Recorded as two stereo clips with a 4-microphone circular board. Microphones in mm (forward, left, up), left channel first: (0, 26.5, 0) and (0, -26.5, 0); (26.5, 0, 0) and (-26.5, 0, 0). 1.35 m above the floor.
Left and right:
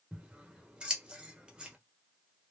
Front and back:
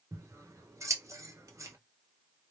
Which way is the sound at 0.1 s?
160° right.